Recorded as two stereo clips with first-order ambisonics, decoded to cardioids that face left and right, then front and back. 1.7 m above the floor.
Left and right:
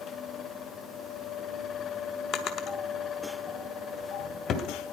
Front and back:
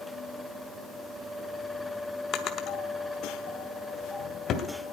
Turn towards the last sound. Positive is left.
turn(degrees=45)